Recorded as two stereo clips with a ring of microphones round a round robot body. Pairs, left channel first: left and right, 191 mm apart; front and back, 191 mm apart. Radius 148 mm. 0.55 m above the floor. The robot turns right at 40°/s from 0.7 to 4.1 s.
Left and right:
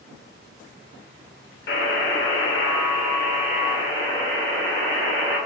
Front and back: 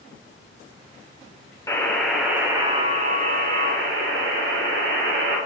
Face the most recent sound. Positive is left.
turn(degrees=170)